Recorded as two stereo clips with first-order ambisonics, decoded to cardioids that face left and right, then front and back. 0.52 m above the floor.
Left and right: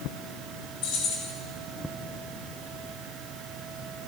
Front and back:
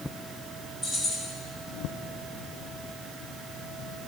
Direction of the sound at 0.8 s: 65° left.